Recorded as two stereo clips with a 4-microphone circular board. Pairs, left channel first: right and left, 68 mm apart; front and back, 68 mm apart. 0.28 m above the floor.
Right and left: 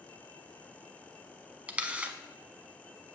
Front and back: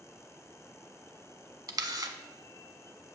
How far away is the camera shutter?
About 0.6 m.